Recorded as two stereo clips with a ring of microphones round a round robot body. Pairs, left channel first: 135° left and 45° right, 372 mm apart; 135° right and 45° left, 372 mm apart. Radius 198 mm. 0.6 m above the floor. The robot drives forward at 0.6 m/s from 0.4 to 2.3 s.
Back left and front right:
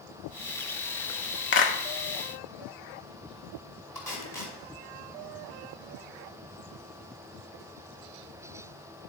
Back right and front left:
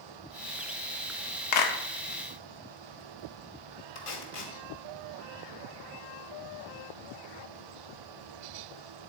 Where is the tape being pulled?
140° right, 1.8 m.